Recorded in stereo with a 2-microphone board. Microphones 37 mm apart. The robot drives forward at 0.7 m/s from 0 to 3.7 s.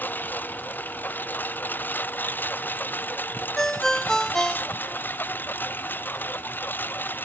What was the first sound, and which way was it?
A lawn mower, 60° left (ahead or behind).